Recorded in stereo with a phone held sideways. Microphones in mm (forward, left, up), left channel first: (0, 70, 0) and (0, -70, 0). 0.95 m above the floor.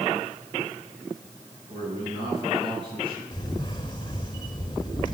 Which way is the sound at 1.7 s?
35° right (ahead or behind).